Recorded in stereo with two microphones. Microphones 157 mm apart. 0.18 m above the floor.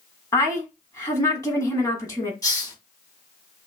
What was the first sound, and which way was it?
A woman speaking, 20° left (ahead or behind).